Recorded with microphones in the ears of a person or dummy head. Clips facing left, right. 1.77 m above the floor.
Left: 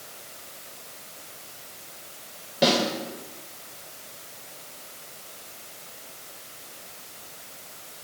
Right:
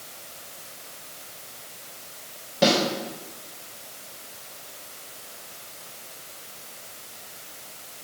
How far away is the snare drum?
About 4.5 m.